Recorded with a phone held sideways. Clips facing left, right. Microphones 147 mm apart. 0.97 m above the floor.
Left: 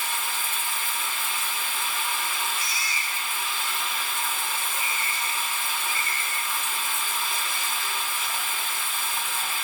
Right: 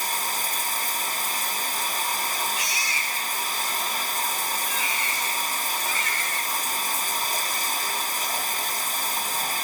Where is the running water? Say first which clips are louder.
Right 3 dB; 40° right (ahead or behind), 1.0 m.